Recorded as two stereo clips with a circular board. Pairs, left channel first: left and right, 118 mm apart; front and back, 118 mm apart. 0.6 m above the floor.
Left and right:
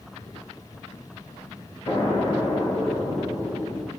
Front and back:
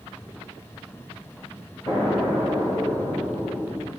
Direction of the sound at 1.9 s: 55° left.